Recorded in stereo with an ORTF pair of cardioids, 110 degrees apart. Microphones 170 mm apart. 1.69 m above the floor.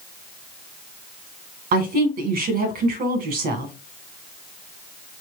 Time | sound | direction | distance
1.7 | a woman speaking | 65° right | 1.7 m